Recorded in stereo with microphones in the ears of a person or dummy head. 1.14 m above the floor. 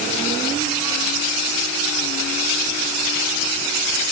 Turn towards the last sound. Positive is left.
No sound to turn to.